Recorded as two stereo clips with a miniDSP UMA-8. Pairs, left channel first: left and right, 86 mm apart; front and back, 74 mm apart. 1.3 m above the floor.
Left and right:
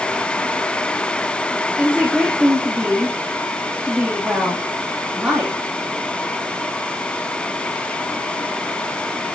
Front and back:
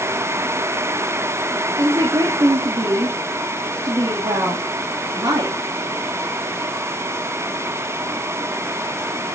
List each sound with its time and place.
1.8 s a woman speaking: 170° right, 2.5 m